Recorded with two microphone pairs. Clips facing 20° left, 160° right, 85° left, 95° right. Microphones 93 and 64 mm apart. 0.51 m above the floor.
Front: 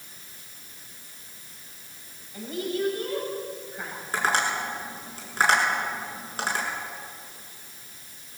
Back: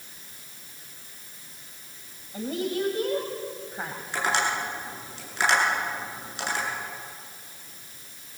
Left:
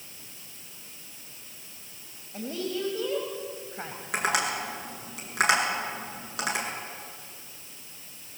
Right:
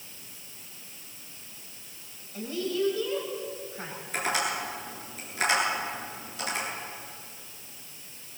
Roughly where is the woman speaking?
Behind left.